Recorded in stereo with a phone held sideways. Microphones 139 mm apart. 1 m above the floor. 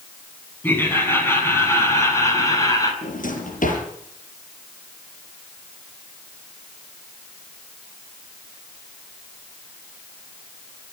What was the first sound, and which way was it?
Laughter, 15° left (ahead or behind).